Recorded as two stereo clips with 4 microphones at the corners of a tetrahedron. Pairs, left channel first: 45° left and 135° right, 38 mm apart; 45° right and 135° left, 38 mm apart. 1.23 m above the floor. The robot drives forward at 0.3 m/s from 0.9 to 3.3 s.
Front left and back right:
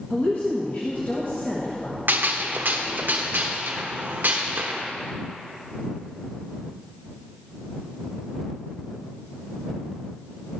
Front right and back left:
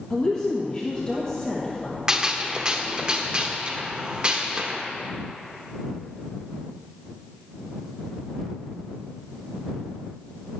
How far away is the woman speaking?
About 1.5 m.